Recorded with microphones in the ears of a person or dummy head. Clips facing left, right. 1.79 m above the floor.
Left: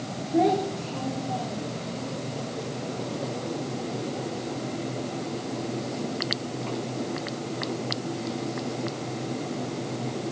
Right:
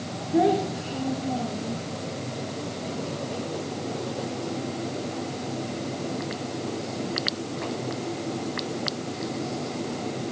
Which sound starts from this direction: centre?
A child speaking, at 0.3 s.